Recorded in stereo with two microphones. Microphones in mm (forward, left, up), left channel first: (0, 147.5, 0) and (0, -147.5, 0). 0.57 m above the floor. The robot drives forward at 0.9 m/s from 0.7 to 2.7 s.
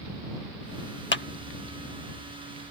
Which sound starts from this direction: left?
A clap, at 1.1 s.